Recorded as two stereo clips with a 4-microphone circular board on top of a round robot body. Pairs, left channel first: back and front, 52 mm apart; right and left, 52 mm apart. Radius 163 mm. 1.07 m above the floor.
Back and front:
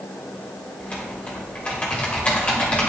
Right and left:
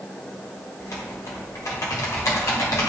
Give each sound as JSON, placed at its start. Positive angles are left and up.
{"t": 0.8, "sound": "typing on a keyboard", "azimuth_deg": -110, "distance_m": 1.4}